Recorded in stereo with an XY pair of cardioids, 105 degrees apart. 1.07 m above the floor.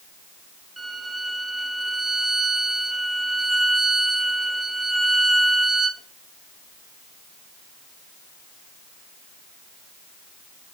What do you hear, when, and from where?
0.8 s a violin: 15° right, 2 m